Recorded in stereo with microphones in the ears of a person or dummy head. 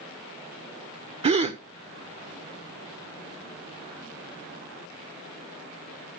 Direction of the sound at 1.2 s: 25° right (ahead or behind).